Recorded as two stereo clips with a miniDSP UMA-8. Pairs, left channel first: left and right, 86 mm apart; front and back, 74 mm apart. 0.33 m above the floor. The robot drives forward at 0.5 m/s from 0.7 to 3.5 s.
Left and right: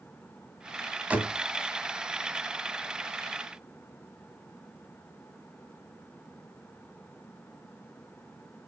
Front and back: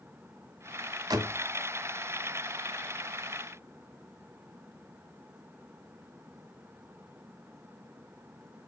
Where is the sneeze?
I don't hear a sneeze.